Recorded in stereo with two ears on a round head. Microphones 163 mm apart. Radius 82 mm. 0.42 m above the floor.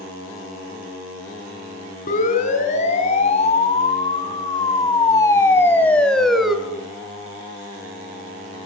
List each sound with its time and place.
2.1 s a siren: 45° left (ahead or behind), 4.5 m; by 6.6 s 5° right (ahead or behind), 2.5 m